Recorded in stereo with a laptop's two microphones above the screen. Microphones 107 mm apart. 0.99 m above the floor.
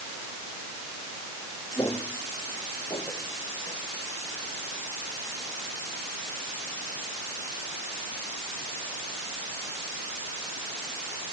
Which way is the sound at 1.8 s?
30° left (ahead or behind).